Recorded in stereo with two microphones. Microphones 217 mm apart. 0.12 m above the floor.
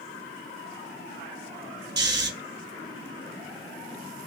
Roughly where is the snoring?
Right.